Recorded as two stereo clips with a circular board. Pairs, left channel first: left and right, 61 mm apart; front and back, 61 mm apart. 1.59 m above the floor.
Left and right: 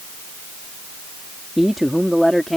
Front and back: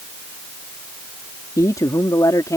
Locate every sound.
1.6 s a man speaking: 5° right; by 2.6 s straight ahead